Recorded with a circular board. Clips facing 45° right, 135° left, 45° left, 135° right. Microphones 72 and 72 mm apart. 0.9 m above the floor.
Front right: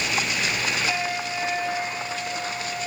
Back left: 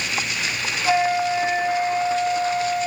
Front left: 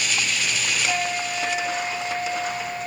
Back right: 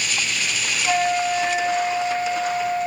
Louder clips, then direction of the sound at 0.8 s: Back left 8 dB, back right 10 dB; 175° left.